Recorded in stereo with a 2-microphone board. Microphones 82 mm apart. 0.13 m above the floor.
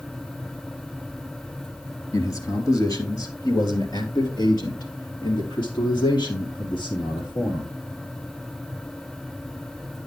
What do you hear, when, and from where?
2.1 s a man speaking: 40° left (ahead or behind), 3 m; by 7.7 s 70° left (ahead or behind), 5 m